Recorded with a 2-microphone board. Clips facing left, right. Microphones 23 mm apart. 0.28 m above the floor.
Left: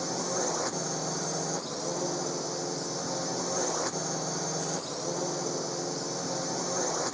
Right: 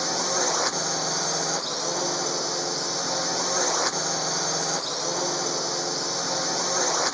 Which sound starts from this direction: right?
A drone, at 0.0 s.